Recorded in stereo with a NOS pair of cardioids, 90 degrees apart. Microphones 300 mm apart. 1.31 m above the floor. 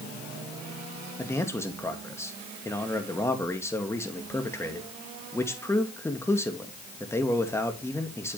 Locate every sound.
1.2 s a man speaking: 10° left, 2.5 m